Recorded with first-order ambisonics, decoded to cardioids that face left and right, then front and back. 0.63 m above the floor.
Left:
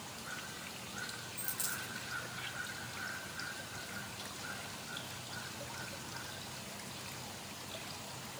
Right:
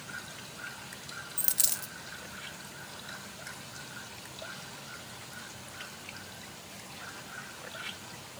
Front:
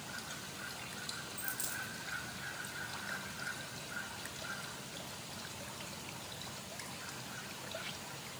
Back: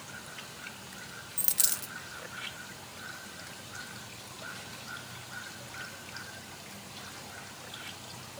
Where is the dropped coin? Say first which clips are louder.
Right 8 dB, back 11 dB; 135° right, 0.5 m.